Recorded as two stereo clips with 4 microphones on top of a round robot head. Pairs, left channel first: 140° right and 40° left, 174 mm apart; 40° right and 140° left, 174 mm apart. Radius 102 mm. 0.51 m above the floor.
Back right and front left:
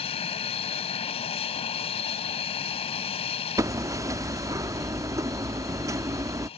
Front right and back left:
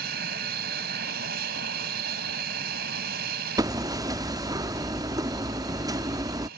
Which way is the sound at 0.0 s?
165° left.